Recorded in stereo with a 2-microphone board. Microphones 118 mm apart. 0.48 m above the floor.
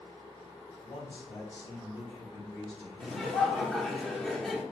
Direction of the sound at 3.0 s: 5° left (ahead or behind).